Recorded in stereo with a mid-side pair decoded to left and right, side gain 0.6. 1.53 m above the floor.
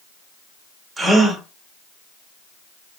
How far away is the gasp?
About 1.4 m.